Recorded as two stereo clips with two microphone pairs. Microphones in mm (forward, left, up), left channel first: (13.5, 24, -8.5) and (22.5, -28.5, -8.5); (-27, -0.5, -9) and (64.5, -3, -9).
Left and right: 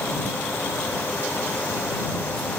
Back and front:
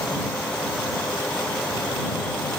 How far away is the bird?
I don't hear a bird.